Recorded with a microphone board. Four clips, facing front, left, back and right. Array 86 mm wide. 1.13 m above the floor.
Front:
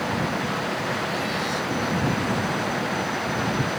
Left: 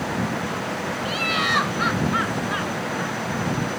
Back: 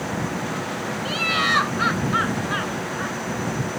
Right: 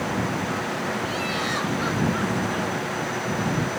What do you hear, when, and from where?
1.1 s laughter: 150° left